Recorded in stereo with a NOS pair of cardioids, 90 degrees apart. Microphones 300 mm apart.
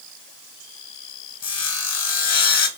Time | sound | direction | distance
1.4 | sawing | 55° left | 1.0 m